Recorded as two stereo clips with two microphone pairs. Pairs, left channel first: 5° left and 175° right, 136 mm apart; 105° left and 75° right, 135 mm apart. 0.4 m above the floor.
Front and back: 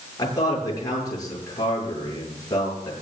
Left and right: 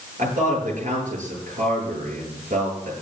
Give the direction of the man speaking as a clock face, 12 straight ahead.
2 o'clock.